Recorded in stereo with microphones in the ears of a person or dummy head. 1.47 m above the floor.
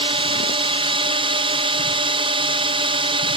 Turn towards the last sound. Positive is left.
turn(degrees=-30)  # may be behind; listen again after turning